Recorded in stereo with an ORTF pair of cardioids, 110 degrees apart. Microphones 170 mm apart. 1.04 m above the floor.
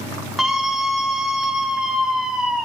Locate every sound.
0.4 s a scream: straight ahead, 1.7 m